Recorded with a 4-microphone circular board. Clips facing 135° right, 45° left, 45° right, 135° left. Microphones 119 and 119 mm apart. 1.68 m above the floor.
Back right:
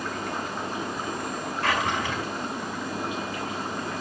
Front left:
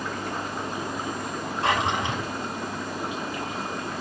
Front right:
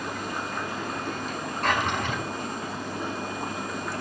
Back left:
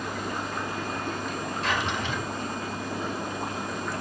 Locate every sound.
1.6 s a drawer: 20° right, 4.5 m